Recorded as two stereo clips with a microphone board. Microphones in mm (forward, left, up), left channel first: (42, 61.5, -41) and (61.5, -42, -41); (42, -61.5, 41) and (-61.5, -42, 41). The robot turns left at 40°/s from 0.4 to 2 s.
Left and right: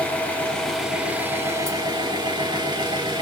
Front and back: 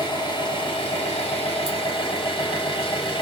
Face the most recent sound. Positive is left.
turn(degrees=-40)